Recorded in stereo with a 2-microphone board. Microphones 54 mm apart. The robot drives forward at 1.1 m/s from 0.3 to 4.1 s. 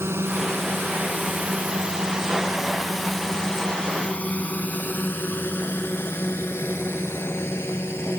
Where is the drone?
50° right (ahead or behind); by 8.2 s 50° left (ahead or behind).